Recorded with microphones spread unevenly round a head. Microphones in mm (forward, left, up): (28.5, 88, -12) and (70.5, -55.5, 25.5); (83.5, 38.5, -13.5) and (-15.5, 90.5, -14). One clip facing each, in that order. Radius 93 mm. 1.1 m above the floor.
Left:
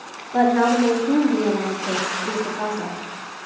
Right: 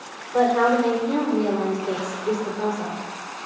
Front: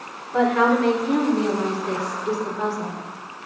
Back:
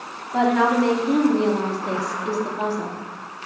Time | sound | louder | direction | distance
0.3 | a woman speaking | left 1 dB, even | 90° left | 3 m